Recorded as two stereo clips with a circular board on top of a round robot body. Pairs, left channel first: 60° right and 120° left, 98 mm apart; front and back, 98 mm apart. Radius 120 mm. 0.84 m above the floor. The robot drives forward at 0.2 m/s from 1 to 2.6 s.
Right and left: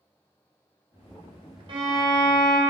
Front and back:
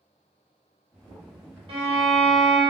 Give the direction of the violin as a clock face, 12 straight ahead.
7 o'clock.